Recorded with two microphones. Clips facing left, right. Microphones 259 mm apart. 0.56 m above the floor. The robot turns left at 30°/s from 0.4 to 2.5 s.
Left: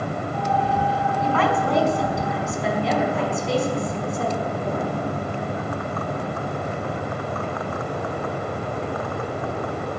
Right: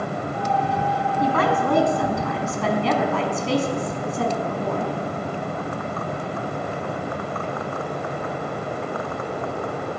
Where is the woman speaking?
40° right, 5 m; by 4.9 s 75° right, 5 m.